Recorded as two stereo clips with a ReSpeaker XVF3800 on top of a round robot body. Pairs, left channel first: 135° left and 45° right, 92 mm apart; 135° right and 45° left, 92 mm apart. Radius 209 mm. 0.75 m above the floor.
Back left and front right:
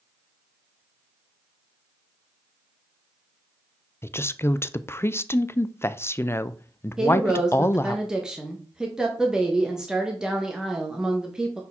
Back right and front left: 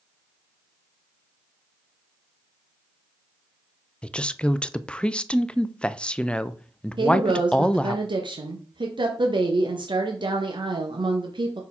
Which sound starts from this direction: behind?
A woman speaking, at 4.0 s.